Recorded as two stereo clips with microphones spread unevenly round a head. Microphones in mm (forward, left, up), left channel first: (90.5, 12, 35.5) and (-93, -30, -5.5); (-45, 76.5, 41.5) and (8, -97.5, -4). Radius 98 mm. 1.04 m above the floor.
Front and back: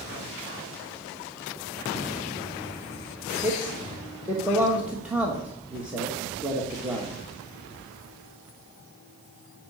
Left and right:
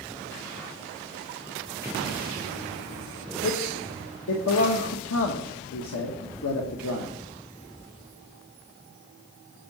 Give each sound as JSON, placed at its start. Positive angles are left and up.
{"t": 3.4, "sound": "a man speaking", "azimuth_deg": 115, "distance_m": 1.3}